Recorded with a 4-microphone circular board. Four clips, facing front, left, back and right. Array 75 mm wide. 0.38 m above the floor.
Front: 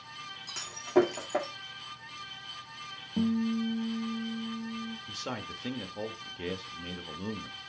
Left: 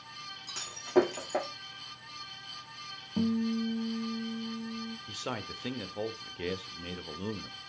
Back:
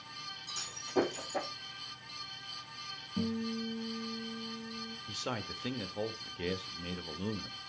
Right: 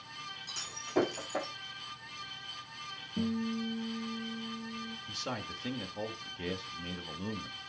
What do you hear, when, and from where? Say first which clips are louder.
0.5 s breaking glass: left 8 dB, front 10 dB; 50° left, 4.5 m
3.2 s a guitar: left 4 dB, front 7 dB; 65° left, 1.4 m
5.1 s a man speaking: even, front 1 dB; 100° left, 0.8 m